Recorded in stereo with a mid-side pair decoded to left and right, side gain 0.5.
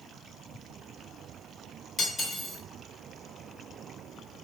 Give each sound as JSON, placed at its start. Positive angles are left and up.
{"t": 2.0, "sound": "cutlery clinking", "azimuth_deg": 40, "distance_m": 1.5}